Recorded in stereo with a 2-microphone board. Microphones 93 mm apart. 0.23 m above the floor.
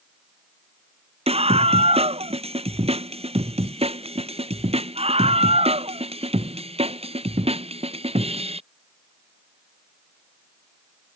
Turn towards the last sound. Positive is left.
turn(degrees=-85)